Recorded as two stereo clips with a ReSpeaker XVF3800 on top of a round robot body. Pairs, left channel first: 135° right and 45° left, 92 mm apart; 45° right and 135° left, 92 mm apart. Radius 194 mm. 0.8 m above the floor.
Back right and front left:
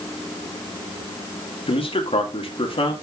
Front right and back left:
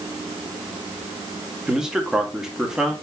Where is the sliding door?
No sliding door in this recording.